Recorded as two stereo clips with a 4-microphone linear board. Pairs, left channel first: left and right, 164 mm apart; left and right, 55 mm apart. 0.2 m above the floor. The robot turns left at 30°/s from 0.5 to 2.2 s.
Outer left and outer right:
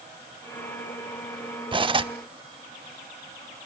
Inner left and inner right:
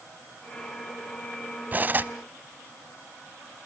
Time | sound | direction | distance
1.7 | cutlery clinking | 30° right (ahead or behind) | 0.7 m